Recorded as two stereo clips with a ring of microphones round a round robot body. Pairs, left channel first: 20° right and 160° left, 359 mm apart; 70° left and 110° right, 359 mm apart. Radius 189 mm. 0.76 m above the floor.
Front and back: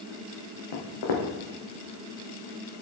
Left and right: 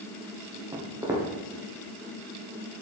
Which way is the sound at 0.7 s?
30° right.